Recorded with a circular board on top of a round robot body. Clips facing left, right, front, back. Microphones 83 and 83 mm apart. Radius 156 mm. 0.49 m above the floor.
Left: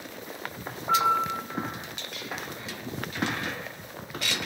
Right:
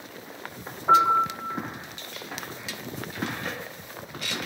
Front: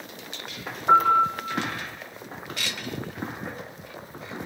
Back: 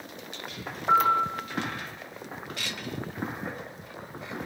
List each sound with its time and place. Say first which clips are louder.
0.9 s a piano: right 4 dB, front 4 dB; 75° right, 8 m